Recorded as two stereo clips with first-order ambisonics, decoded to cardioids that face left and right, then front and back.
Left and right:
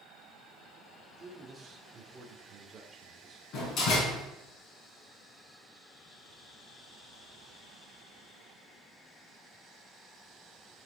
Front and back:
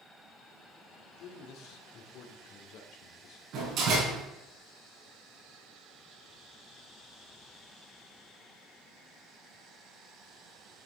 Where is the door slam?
135° left, 5 m.